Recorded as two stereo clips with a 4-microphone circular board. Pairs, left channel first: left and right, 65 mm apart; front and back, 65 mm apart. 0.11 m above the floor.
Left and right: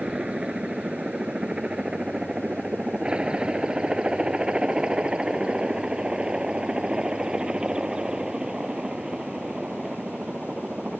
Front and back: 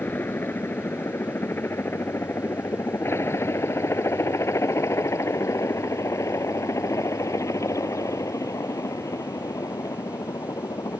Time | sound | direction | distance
0.0 | a helicopter | 25° right | ?